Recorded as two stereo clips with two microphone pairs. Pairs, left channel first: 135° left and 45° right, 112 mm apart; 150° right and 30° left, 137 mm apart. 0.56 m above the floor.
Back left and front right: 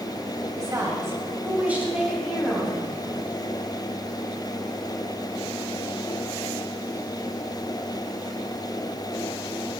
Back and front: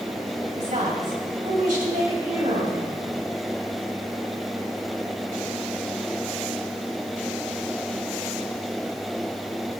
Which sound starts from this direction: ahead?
A woman speaking, at 0.6 s.